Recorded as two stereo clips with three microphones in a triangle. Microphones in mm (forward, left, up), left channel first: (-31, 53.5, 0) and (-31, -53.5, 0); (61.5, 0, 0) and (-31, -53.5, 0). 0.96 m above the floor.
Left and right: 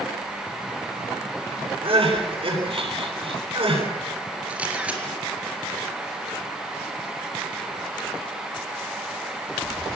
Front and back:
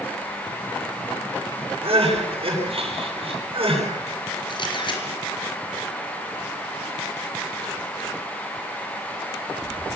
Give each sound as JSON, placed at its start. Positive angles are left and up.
{"t": 1.8, "sound": "crying", "azimuth_deg": -120, "distance_m": 9.5}
{"t": 4.5, "sound": "a camera shutter", "azimuth_deg": -10, "distance_m": 4.0}